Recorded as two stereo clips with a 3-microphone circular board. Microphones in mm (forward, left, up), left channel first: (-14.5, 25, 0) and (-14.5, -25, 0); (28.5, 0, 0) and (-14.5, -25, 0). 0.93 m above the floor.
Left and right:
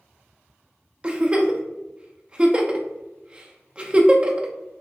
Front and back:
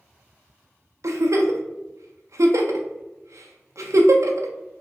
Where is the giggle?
160° right, 0.5 m.